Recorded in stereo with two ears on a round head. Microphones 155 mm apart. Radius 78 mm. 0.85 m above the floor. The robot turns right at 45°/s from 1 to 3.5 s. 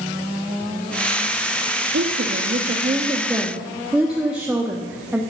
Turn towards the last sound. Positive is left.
turn(degrees=-5)